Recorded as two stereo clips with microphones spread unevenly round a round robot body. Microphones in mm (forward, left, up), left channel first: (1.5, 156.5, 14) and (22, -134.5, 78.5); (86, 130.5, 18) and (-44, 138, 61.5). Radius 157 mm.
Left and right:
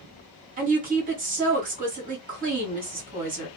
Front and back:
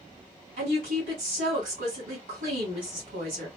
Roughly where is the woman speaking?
Behind right.